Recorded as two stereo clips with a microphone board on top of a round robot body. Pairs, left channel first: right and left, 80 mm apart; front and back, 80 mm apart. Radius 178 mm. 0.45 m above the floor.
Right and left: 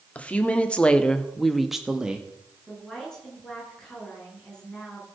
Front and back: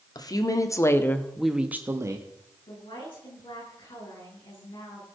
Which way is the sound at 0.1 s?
15° right.